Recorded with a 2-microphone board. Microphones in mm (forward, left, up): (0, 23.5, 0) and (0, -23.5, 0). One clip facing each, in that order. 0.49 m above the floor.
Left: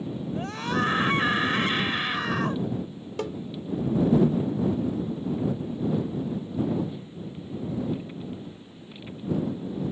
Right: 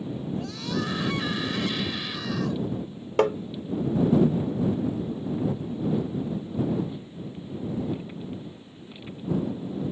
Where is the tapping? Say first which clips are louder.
Right 10 dB; 50° right (ahead or behind).